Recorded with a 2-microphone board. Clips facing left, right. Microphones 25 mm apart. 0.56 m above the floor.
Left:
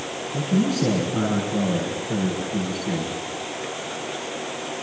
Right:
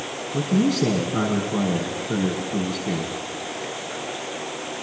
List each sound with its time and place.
0.3 s a man speaking: 75° right (ahead or behind), 6 m